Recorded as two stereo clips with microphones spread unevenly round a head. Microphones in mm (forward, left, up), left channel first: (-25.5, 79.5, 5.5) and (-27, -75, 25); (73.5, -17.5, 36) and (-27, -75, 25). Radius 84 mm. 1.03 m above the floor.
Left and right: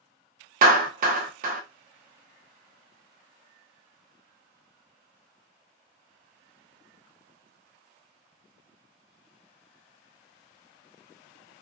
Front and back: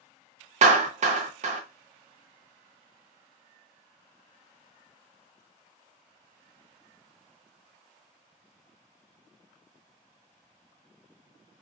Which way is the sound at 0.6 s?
125° right.